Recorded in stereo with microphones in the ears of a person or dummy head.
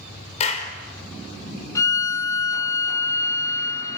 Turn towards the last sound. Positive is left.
turn(degrees=15)  # may be behind; listen again after turning